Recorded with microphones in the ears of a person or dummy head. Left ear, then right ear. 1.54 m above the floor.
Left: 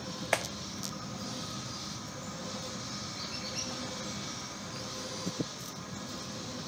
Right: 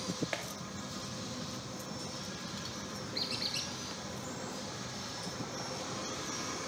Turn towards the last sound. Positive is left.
turn(degrees=-45)  # may be behind; listen again after turning